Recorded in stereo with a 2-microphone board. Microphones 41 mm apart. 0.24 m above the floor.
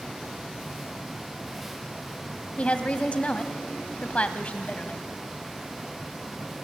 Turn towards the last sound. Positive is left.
turn(degrees=35)  # may be behind; listen again after turning